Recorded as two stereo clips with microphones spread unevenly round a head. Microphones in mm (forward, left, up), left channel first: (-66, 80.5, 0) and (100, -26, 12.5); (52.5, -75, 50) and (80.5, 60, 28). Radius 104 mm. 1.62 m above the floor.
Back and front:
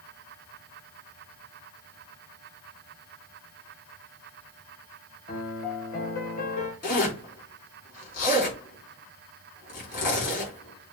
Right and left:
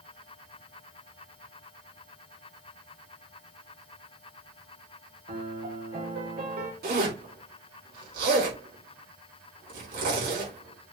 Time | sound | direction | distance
5.3 | a piano | 105° left | 2.0 m
6.8 | a zipper | 100° left | 4 m